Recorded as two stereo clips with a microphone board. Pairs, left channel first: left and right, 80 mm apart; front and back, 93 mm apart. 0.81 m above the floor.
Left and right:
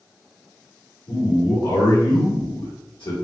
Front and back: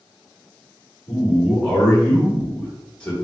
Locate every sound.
1.1 s a man speaking: 80° left, 2.0 m